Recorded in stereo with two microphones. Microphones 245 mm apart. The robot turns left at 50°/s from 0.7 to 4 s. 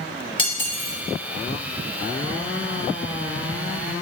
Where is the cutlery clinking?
20° left (ahead or behind), 0.8 m; by 1.0 s 35° left (ahead or behind), 0.8 m.